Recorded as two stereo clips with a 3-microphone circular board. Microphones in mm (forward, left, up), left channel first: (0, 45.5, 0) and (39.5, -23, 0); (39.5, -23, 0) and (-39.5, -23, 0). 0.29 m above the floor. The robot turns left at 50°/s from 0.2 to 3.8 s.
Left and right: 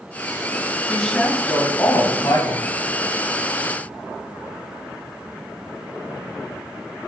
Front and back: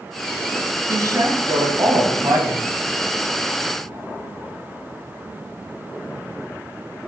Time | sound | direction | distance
0.9 | a woman speaking | 150° right | 1.4 m